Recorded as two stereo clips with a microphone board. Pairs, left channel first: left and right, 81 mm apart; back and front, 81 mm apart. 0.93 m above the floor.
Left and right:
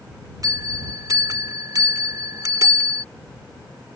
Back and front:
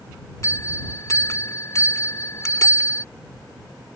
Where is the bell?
130° right.